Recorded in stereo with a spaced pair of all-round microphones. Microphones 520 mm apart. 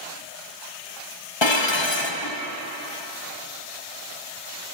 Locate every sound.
1.4 s dishes clattering: 55° left (ahead or behind), 1.0 m